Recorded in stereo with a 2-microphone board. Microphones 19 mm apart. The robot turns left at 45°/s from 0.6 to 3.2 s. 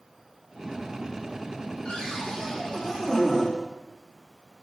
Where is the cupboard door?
80° left, 4 m; by 3.5 s 20° left, 4 m.